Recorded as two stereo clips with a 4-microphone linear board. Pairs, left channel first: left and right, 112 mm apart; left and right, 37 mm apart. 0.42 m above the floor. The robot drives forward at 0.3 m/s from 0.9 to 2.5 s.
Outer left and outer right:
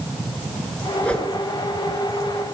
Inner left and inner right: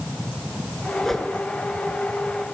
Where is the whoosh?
10° left (ahead or behind), 1.5 m.